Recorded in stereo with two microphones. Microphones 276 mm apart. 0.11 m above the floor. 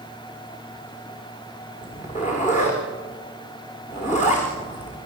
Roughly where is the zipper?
Left.